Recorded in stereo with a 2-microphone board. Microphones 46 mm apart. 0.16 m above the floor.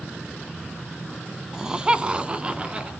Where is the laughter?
10° right (ahead or behind), 1.1 m; by 2.9 s 20° right (ahead or behind), 2 m.